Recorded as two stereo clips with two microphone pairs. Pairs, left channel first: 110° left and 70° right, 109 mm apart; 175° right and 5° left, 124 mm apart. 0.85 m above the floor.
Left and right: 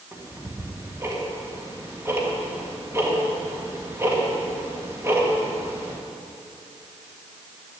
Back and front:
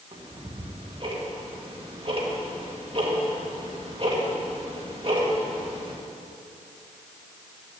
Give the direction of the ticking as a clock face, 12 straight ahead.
12 o'clock.